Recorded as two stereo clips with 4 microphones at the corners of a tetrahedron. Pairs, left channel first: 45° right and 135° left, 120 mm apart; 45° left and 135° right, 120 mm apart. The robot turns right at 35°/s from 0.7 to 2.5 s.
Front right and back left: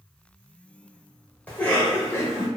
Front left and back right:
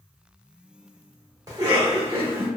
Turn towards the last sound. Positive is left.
turn(degrees=-75)